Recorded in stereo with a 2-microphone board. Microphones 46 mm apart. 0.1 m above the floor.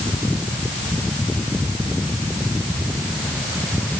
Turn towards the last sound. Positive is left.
No sound to turn to.